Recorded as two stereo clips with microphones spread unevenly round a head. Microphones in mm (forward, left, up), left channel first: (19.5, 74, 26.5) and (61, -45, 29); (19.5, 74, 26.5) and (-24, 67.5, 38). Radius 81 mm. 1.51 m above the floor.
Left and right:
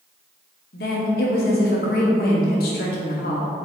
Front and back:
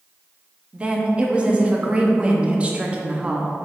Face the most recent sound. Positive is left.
turn(degrees=130)